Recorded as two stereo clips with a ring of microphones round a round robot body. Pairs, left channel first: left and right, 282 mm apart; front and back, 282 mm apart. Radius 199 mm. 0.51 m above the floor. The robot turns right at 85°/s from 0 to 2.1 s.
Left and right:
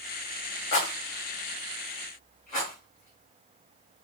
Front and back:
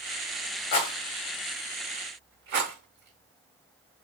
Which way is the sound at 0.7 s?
45° left.